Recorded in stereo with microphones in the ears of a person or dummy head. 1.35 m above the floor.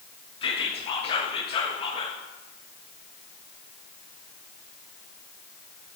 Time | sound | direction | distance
0.4 | whispering | 35° left (ahead or behind) | 0.6 m